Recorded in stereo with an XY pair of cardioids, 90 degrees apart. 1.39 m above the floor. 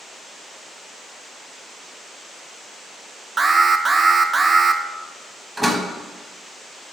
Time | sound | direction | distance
3.4 | an alarm | 30° right | 0.5 m
5.6 | a door slam | 5° right | 1.3 m